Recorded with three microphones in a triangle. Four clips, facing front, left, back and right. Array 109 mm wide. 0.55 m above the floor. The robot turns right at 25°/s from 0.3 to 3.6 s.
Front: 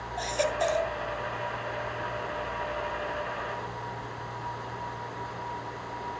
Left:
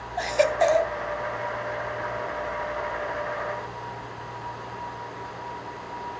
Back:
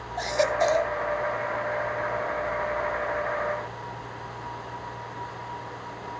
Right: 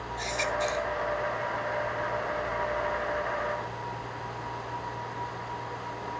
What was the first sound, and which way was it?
A baby crying, 105° left.